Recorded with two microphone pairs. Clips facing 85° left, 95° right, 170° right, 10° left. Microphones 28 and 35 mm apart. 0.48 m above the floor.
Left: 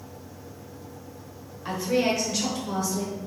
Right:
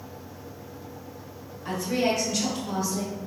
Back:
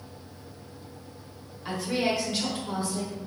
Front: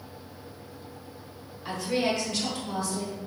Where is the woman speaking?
90° left, 0.9 m; by 3.2 s 150° right, 1.1 m.